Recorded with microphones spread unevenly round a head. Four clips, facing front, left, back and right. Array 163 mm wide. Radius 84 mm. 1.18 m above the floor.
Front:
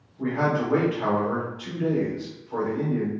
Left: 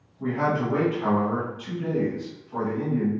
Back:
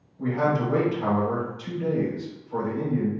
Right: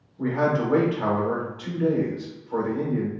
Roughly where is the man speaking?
Right.